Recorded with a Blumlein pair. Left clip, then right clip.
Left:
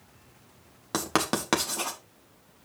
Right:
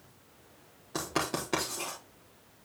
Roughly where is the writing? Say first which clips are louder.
Left 5 dB; ahead left.